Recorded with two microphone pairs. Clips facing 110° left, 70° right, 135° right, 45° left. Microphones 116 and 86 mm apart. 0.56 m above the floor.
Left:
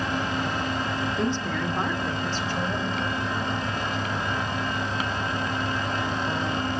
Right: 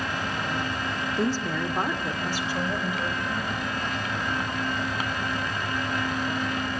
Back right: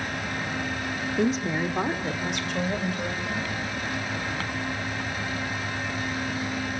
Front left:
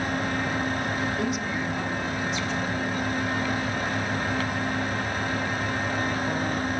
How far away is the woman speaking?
About 1.2 m.